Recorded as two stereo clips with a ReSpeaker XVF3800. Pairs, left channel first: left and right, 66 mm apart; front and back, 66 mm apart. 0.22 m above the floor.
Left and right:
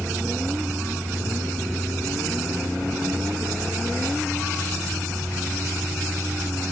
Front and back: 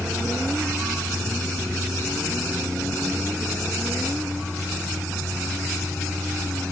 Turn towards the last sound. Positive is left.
No sound to turn to.